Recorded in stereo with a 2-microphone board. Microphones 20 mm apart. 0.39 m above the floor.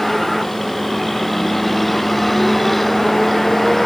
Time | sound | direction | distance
0.0 | a vehicle | 5° left (ahead or behind) | ?